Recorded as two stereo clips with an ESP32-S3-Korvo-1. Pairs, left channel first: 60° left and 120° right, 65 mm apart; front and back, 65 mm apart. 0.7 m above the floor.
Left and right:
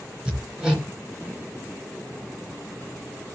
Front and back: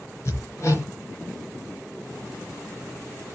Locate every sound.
0.2 s hammering: 45° right, 3.5 m